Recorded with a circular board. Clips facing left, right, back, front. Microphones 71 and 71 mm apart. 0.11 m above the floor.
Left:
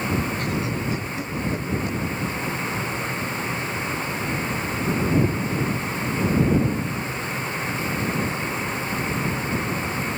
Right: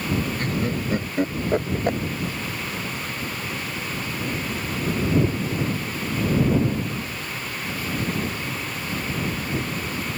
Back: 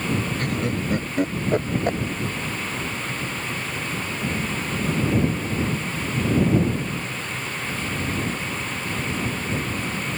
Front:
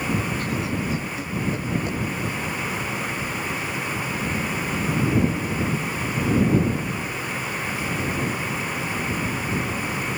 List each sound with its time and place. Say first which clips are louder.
0.4 s laughter: even, back 1 dB; 140° right; by 2.0 s 130° right